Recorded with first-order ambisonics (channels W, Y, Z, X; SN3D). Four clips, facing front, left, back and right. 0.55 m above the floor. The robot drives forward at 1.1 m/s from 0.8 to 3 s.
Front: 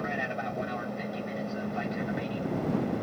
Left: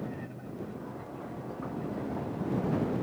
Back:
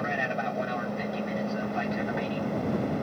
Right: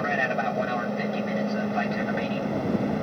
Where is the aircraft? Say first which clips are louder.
Right 16 dB, back 3 dB; 105° right.